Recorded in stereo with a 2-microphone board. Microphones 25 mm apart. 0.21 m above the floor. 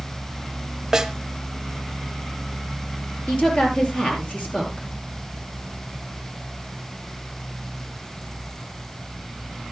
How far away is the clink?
No clink in this recording.